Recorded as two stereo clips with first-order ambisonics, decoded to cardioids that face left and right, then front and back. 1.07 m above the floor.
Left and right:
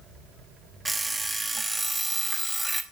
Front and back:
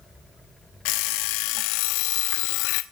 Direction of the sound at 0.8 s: 10° right.